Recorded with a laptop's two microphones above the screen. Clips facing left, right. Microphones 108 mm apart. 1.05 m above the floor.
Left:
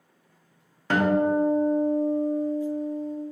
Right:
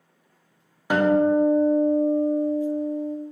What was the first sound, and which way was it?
A guitar, 15° right (ahead or behind).